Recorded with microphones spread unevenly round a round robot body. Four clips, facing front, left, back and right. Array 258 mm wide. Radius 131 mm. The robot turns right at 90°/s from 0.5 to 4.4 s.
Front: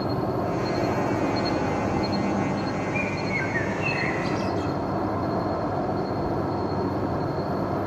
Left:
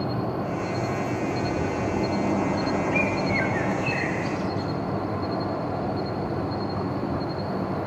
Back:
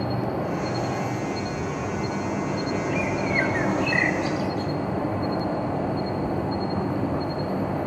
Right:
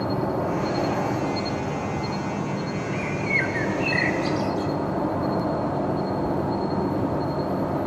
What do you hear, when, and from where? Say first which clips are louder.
0.0 s an insect: right 3 dB, front 1 dB; 115° right, 1.5 m; by 7.9 s 125° right, 1.5 m
2.9 s a bird: left 3 dB, back 2 dB; 115° left, 1.9 m; by 4.7 s 105° right, 1.9 m